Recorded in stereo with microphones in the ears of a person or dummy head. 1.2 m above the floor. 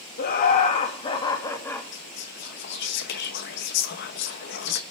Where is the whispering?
55° left (ahead or behind), 1.0 m.